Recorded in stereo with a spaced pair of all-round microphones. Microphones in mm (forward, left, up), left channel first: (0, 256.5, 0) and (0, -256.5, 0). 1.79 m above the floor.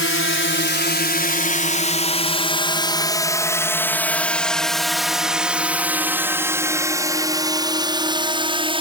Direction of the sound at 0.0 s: 25° left (ahead or behind).